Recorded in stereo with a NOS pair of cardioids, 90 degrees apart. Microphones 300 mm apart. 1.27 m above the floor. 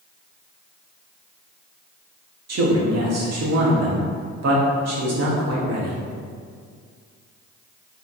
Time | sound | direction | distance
2.5 | a man speaking | 60° right | 2.5 m